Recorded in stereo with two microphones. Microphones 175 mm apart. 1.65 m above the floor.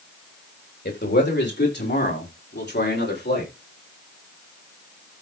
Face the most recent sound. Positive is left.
turn(degrees=75)  # may be behind; listen again after turning